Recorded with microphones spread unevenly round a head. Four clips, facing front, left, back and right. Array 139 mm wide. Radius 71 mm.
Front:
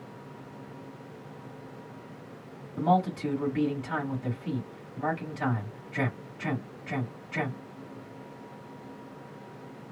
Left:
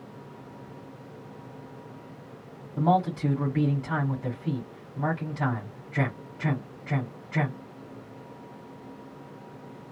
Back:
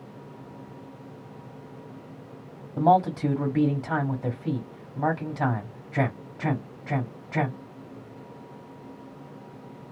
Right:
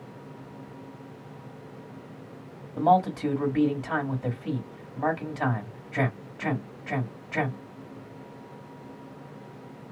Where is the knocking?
No knocking in this recording.